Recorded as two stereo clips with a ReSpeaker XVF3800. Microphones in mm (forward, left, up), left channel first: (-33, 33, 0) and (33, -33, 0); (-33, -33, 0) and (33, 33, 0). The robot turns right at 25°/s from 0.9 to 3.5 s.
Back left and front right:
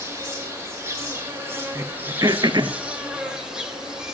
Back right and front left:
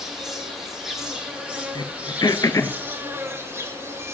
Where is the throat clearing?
105° right, 0.7 m; by 2.8 s 75° right, 0.7 m.